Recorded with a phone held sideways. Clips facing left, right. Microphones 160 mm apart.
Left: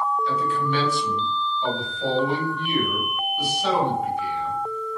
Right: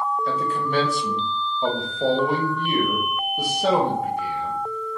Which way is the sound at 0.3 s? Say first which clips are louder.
Even; 50° right (ahead or behind).